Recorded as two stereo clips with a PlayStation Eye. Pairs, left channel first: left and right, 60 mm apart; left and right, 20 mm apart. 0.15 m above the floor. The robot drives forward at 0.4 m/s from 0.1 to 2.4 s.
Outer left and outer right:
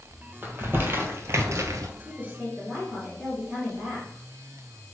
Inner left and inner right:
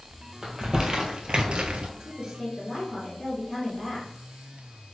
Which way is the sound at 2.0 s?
25° right (ahead or behind).